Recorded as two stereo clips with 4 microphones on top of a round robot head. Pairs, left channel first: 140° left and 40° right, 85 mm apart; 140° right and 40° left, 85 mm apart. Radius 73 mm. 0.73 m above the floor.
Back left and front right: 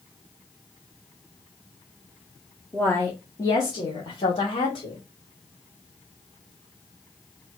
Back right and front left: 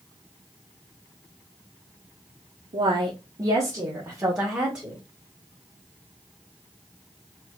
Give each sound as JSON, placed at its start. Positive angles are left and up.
{"t": 2.7, "sound": "a woman speaking", "azimuth_deg": 65, "distance_m": 1.4}